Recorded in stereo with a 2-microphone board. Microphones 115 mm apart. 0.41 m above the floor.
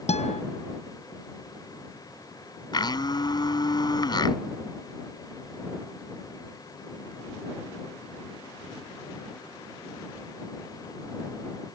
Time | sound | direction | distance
0.1 | a guitar | 70° left (ahead or behind) | ?
2.7 | a blender | 40° left (ahead or behind) | ?